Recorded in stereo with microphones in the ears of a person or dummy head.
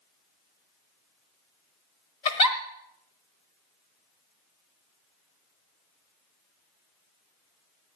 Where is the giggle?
25° left (ahead or behind), 1.1 m.